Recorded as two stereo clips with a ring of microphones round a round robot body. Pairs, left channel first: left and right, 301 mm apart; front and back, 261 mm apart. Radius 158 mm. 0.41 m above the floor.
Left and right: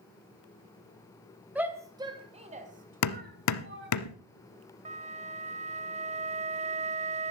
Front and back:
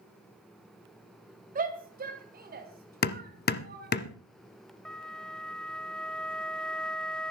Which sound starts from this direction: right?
A flute, at 4.8 s.